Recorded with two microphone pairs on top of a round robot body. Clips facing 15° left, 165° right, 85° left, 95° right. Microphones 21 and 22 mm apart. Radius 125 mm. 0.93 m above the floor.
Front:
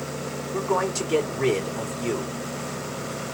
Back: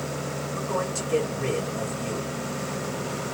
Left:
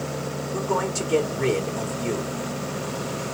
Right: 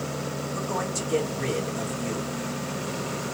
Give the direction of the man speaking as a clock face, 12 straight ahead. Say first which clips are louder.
Front 5 dB, left 6 dB; 11 o'clock.